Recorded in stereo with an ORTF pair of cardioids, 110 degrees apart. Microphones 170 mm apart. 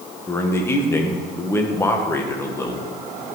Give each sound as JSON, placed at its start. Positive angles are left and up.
{"t": 0.3, "sound": "a man speaking", "azimuth_deg": 15, "distance_m": 1.5}